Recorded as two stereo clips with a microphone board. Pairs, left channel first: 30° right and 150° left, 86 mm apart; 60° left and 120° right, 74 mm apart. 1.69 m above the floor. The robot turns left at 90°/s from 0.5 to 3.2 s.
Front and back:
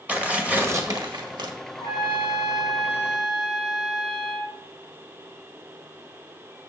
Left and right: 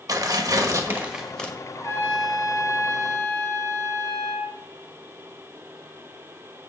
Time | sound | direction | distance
0.1 | tearing paper | 140° right | 1.5 m
1.7 | a trumpet | 15° left | 4 m